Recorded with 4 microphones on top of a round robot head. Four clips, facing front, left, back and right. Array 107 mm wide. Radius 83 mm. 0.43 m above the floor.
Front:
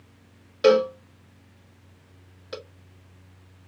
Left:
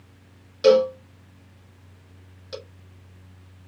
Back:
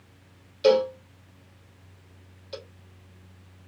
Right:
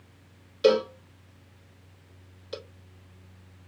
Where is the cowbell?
15° left, 1.1 m.